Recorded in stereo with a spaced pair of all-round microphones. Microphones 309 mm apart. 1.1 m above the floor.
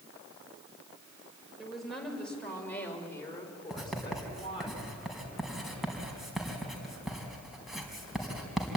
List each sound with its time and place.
1.6 s a woman speaking: centre (ahead or behind), 5 m; by 4.7 s 20° left (ahead or behind), 4 m
3.7 s writing: centre (ahead or behind), 4 m